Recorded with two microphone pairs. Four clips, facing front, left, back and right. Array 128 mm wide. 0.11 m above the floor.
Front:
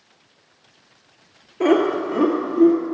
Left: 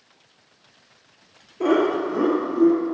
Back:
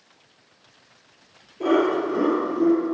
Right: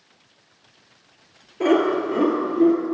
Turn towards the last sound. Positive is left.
turn(degrees=-45)